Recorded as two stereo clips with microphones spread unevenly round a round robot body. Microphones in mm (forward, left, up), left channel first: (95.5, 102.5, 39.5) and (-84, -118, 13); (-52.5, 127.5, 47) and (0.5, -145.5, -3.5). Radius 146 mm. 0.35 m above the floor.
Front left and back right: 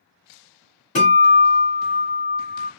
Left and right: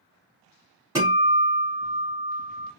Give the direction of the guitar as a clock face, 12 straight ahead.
12 o'clock.